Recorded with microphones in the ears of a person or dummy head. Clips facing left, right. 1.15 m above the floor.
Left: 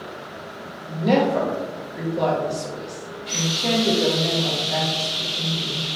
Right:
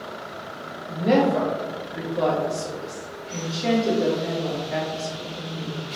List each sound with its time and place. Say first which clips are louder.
0.9 s a woman speaking: even; centre (ahead or behind), 0.9 m